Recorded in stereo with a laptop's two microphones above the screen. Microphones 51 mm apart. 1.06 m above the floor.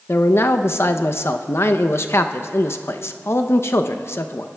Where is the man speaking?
55° left (ahead or behind), 0.5 m.